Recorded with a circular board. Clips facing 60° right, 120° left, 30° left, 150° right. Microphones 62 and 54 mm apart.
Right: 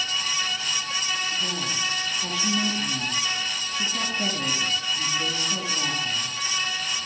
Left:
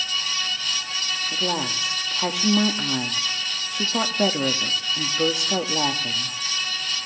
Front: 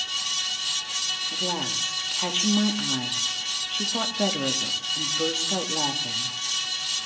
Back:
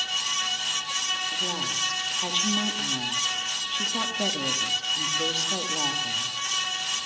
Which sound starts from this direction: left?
A woman speaking, at 1.3 s.